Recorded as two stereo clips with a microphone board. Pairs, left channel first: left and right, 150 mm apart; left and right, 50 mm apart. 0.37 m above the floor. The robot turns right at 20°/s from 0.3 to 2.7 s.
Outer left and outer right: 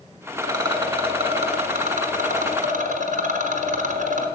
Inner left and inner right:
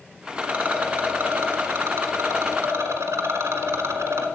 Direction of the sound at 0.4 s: 155° right.